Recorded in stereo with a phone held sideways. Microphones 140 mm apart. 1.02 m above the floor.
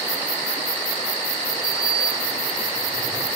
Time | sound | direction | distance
1.6 | a sliding door | 30° right (ahead or behind) | 5 m